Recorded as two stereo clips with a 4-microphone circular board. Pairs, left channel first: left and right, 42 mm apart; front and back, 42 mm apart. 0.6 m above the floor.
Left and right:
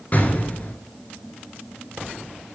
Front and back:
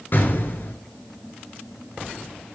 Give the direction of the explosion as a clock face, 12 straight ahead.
11 o'clock.